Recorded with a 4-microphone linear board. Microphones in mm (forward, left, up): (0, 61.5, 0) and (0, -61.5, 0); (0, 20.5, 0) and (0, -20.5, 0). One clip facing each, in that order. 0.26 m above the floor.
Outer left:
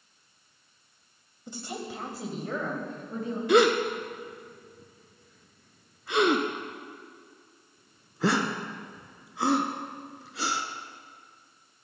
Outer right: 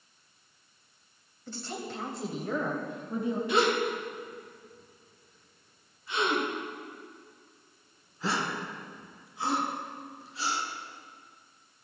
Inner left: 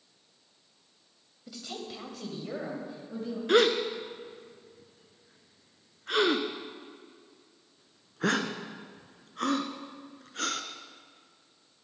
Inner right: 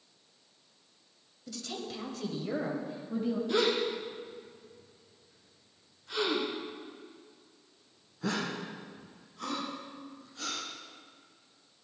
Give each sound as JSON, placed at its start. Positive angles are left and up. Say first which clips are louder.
{"t": 1.5, "sound": "a woman speaking", "louder": "outer left 1 dB, inner right 1 dB", "side_deg": 15, "distance_m": 1.5}
{"t": 3.5, "sound": "a gasp", "louder": "outer left 7 dB, inner left 7 dB", "side_deg": 75, "distance_m": 0.9}